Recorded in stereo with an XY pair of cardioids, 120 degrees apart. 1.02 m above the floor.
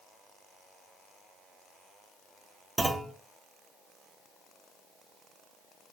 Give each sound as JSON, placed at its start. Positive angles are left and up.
{"t": 2.8, "sound": "a clunk", "azimuth_deg": -20, "distance_m": 1.3}